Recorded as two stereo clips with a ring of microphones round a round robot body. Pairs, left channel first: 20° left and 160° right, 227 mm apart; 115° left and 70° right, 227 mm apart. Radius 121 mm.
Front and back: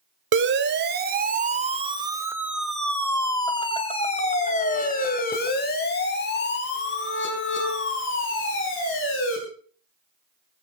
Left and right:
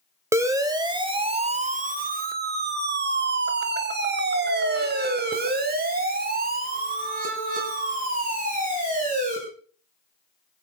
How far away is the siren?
About 2.5 m.